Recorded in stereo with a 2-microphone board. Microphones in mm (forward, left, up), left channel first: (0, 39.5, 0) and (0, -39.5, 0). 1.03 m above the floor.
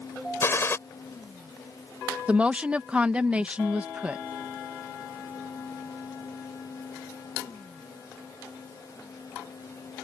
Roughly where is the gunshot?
Left.